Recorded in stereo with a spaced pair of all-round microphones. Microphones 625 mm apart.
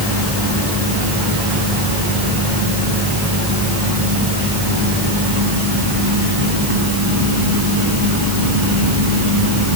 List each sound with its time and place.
Only background noise.